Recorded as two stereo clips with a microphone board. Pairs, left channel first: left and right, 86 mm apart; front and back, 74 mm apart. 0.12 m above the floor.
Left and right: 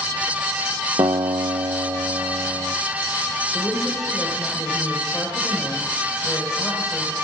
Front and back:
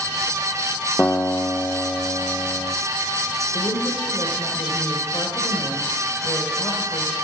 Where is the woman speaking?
5° right, 3.5 m.